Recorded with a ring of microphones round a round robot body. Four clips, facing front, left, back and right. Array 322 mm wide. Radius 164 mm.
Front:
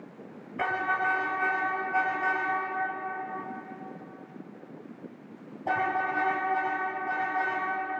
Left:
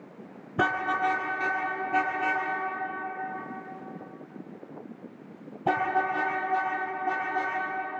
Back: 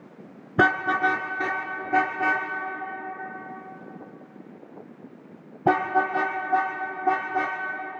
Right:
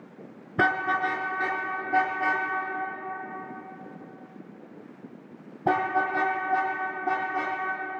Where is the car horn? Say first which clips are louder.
Right 1 dB, back 7 dB; 175° right, 2.5 m; by 7.6 s 165° right, 7 m.